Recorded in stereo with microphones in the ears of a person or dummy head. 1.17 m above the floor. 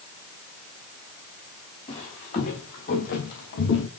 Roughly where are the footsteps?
Left.